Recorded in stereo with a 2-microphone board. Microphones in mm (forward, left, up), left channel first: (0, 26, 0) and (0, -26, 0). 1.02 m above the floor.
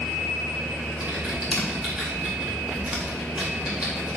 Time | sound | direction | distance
1.0 | typing on a keyboard | 25° right (ahead or behind) | 2.5 m